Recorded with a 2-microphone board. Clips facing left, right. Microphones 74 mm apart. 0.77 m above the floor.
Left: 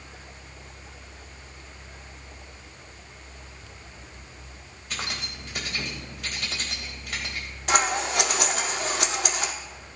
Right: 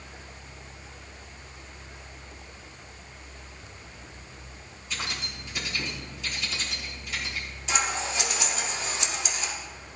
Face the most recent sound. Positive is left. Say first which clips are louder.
# left 5 dB
turn(degrees=65)  # may be behind; listen again after turning